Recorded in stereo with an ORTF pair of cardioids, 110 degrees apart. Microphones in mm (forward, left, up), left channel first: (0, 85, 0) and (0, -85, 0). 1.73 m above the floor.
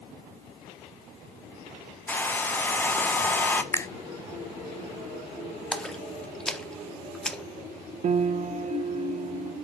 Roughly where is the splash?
Ahead.